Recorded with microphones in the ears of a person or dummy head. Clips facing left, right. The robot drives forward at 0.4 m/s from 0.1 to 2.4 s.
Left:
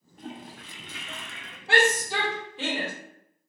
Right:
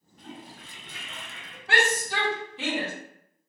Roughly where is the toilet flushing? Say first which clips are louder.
Left 3 dB; left.